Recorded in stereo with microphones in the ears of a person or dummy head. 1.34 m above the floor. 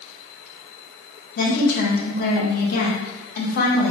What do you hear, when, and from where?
1.4 s a woman speaking: 50° left (ahead or behind), 1.1 m